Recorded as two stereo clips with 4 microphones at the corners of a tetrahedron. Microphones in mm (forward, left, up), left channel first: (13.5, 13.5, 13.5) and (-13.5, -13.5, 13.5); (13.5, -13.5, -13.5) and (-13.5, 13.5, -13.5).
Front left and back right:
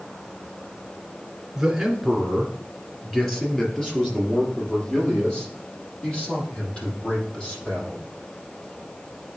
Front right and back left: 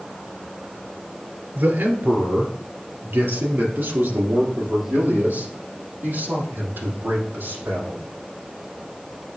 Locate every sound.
1.6 s a man speaking: 140° left, 2 m; by 8.0 s 105° left, 7 m